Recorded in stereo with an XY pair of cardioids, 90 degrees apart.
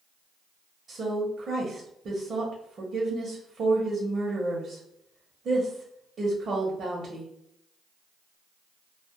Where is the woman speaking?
55° right, 0.8 m.